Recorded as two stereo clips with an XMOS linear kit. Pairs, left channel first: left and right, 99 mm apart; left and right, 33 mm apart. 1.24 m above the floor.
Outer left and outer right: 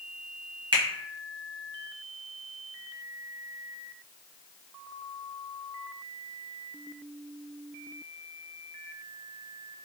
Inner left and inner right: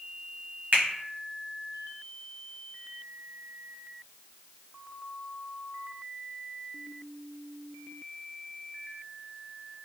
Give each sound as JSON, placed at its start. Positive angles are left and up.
{"t": 0.7, "sound": "a finger snap", "side_deg": -50, "distance_m": 0.9}